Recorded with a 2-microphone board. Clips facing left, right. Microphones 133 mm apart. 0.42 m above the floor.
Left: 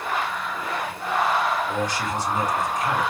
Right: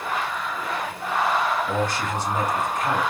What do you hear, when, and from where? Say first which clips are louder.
1.7 s a man speaking: right 1 dB; 55° right (ahead or behind), 2.5 m